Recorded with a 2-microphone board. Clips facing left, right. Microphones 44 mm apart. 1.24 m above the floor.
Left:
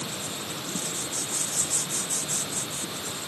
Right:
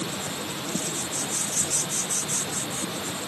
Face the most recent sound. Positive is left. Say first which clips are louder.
# right 3 dB
turn(degrees=-60)  # may be behind; listen again after turning